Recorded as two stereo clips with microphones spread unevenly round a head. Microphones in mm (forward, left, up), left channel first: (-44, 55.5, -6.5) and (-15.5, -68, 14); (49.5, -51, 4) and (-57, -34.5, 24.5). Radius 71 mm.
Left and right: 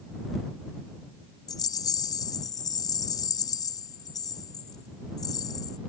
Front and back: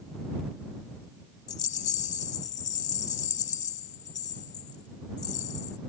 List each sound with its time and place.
1.5 s a rattle: 35° left